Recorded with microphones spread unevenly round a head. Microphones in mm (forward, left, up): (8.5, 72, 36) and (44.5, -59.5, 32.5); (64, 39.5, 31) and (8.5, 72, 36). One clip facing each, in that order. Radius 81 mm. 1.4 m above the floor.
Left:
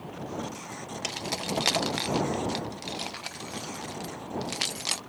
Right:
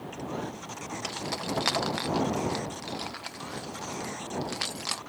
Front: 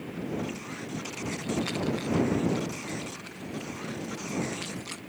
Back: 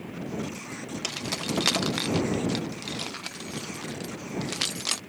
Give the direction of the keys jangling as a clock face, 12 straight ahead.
6 o'clock.